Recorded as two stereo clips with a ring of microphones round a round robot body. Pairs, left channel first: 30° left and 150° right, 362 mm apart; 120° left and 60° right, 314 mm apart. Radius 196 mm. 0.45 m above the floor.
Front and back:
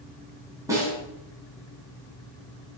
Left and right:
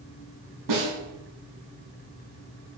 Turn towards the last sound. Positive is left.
turn(degrees=-70)